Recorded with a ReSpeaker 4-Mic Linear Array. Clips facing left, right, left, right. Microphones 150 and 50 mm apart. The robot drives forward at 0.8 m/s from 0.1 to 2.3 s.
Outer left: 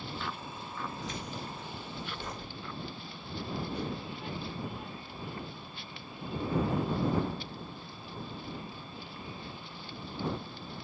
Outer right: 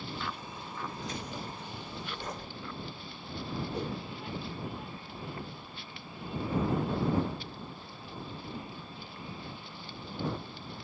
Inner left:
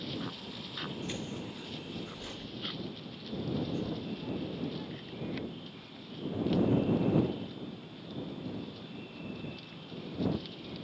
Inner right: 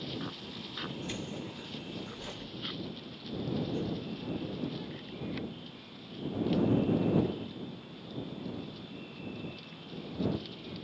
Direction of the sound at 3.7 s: 40° right (ahead or behind).